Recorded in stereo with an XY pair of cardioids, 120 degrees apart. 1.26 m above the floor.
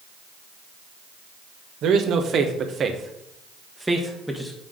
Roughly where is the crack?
No crack in this recording.